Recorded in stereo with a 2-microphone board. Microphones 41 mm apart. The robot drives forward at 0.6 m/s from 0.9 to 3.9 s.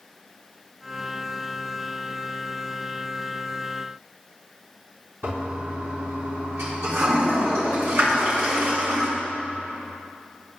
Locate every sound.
5.2 s a toilet flushing: 75° right (ahead or behind), 3 m